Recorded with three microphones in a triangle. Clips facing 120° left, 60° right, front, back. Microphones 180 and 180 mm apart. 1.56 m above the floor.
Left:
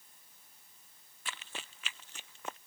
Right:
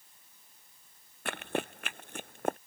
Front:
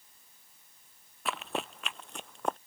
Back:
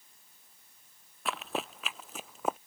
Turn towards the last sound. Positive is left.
turn(degrees=-95)